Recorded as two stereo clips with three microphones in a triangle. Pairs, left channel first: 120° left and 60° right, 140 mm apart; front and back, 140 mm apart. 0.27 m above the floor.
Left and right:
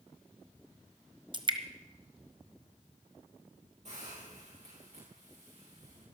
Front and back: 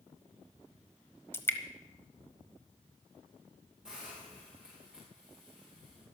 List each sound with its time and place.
1.3 s dripping: 60° right, 1.2 m
3.9 s a hiss: 95° right, 7 m